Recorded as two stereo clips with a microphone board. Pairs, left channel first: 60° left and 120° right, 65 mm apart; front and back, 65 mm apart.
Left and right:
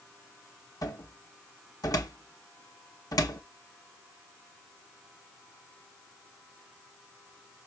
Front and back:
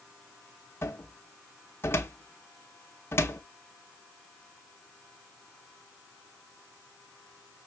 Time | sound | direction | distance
0.8 | a cupboard door | 50° left | 1.2 m